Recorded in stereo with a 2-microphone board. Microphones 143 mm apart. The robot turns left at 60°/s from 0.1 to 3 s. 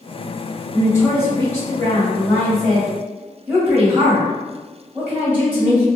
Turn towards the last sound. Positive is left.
turn(degrees=-10)  # may be behind; listen again after turning